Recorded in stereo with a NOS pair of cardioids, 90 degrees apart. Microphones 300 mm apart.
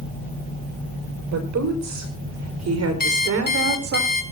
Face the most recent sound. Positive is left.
turn(degrees=30)